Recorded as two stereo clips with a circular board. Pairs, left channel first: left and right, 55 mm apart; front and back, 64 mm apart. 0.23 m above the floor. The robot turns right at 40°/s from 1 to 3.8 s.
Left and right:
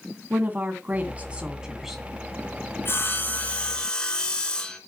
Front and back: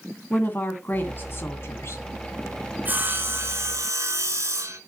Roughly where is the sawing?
Behind left.